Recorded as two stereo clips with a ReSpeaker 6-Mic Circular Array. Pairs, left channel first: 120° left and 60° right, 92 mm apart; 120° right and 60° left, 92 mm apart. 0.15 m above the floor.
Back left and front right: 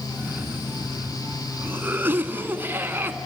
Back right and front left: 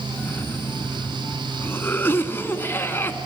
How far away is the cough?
About 1.2 m.